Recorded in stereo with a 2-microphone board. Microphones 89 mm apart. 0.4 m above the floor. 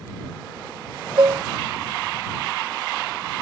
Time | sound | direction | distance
1.2 | dishes clattering | 50° right (ahead or behind) | ?